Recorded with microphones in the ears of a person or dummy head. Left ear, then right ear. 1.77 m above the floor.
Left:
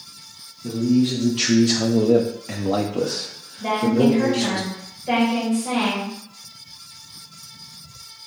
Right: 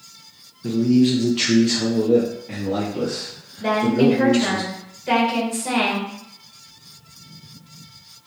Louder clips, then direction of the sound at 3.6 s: Right 1 dB; 30° right (ahead or behind).